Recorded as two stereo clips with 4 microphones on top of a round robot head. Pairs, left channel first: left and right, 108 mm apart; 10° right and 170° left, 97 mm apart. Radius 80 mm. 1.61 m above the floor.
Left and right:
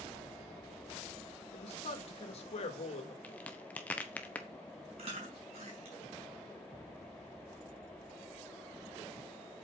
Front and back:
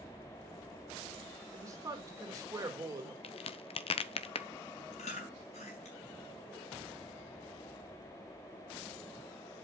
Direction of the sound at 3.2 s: 10° left.